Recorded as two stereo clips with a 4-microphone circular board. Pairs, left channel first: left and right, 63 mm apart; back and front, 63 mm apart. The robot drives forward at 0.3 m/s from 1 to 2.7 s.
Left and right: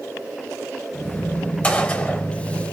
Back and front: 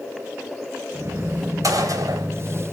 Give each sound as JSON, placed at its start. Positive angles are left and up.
{"t": 1.6, "sound": "a gunshot", "azimuth_deg": 20, "distance_m": 1.3}